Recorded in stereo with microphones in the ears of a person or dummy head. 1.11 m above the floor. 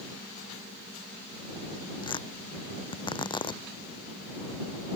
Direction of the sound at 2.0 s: 25° left (ahead or behind).